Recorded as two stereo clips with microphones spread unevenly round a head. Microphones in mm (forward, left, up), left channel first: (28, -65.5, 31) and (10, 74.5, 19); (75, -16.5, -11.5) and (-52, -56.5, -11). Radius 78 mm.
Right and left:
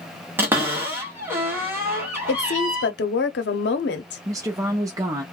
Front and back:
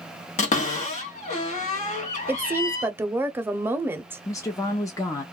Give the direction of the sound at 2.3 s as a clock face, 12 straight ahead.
3 o'clock.